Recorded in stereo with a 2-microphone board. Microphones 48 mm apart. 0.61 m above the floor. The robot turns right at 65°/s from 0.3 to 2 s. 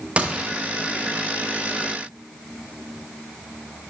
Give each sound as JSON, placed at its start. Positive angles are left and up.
{"t": 0.2, "sound": "a gunshot", "side_deg": -30, "distance_m": 0.7}